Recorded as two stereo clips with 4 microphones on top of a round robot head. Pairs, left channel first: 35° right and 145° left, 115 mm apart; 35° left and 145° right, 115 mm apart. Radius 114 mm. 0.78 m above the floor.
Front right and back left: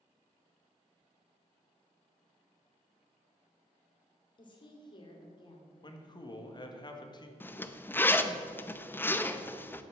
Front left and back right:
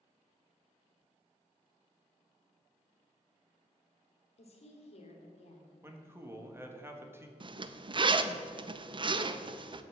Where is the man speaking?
75° right, 1.7 m.